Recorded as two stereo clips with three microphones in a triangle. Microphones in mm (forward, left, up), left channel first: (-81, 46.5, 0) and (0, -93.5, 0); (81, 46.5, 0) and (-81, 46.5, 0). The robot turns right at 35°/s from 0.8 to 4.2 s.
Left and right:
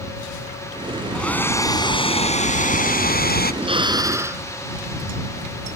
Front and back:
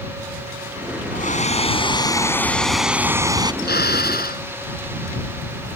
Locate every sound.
1.1 s a hair dryer: 35° left; by 3.5 s 120° left
3.6 s a drill: 5° right; by 4.4 s 15° left